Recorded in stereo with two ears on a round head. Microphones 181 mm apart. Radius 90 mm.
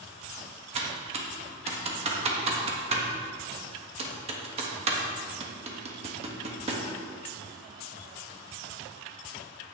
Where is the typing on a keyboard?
30° right (ahead or behind), 1.2 m.